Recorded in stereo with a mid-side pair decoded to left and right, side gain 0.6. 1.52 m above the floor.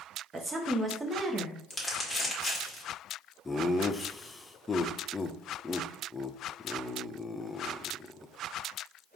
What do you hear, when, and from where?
0.3 s a woman speaking: 20° right, 1.2 m
1.7 s crumpling: 10° left, 1.8 m
3.5 s laughter: 20° left, 0.6 m